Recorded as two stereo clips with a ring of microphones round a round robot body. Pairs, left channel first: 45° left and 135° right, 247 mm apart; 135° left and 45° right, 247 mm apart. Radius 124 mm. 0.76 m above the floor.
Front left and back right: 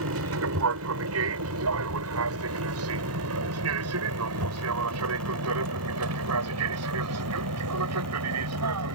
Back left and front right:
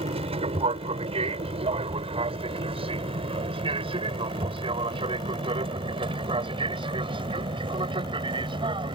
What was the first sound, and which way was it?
An aircraft, 110° right.